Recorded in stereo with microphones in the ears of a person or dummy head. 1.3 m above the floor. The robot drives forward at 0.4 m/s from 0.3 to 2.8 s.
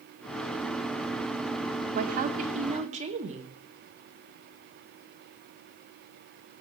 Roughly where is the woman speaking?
Right.